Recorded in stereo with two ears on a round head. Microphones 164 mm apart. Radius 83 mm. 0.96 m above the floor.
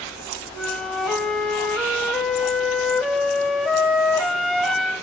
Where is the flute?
5° left (ahead or behind), 1.0 m.